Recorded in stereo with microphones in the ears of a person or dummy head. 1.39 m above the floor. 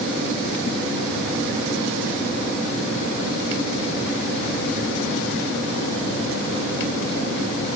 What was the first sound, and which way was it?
Only background noise.